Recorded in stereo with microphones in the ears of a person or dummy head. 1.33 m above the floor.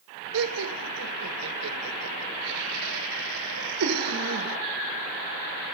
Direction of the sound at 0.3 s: 85° right.